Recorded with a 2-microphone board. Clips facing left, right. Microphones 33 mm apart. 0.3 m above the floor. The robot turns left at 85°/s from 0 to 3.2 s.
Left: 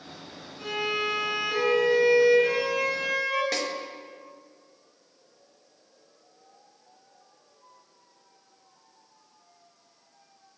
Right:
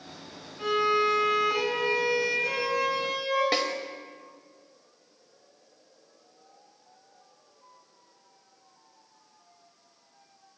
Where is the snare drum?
30° right (ahead or behind), 0.7 m.